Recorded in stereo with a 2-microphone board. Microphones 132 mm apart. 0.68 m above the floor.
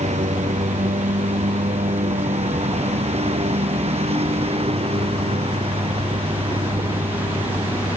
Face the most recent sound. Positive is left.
turn(degrees=-45)  # may be behind; listen again after turning